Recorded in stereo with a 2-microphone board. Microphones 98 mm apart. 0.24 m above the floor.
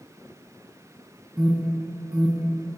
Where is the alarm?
5° right (ahead or behind), 3.5 m.